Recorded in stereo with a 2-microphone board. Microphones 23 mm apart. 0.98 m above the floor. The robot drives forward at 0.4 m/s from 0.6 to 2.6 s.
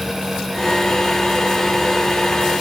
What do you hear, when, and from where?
Only background noise.